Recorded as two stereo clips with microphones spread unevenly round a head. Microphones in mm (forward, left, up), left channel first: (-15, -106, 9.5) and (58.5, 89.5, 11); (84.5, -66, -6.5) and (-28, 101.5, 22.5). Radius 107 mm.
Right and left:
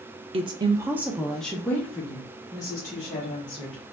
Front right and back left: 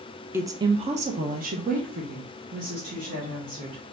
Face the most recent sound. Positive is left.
turn(degrees=180)